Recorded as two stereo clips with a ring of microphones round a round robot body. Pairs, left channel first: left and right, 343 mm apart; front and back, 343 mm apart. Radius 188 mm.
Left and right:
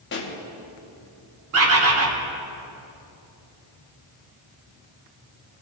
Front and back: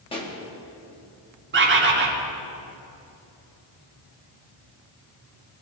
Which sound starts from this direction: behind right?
A bird, at 1.5 s.